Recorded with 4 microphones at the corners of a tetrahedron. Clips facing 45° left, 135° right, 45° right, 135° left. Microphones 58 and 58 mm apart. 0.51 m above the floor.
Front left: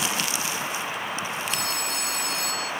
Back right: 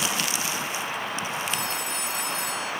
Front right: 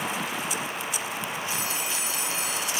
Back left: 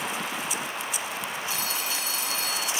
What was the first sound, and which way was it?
A phone ringing, 30° left.